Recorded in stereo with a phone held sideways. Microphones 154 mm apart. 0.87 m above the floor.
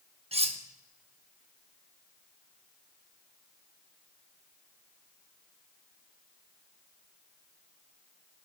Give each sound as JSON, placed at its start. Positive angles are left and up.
{"t": 0.3, "sound": "cutlery clinking", "side_deg": -40, "distance_m": 0.8}